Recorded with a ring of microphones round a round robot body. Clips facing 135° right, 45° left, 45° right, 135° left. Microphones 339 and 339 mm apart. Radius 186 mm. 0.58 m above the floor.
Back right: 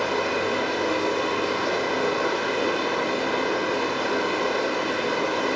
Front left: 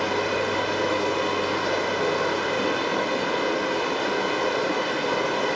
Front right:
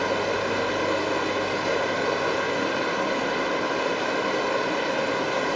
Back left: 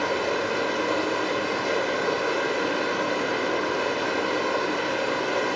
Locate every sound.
0.0 s running water: 5° left, 0.9 m